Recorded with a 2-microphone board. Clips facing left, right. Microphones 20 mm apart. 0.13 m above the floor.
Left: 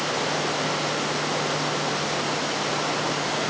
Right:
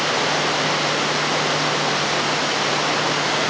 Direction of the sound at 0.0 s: 25° right (ahead or behind).